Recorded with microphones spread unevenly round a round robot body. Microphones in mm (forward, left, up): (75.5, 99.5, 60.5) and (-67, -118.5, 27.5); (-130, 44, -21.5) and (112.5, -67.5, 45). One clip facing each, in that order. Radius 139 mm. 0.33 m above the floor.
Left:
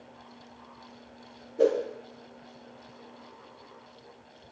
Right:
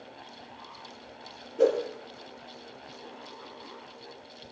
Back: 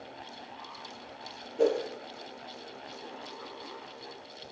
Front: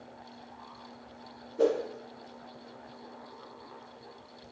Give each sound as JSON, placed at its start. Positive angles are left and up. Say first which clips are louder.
{"t": 1.6, "sound": "a whoosh", "louder": "even, even", "azimuth_deg": -140, "distance_m": 1.2}